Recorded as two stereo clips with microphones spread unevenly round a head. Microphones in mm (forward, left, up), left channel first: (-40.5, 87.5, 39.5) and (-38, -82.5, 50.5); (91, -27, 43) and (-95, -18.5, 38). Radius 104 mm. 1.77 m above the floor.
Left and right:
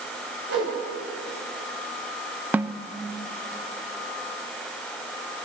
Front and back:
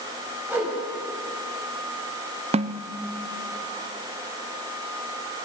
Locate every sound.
0.5 s a whoosh: 100° right, 9.5 m
2.5 s a snare drum: 155° right, 0.5 m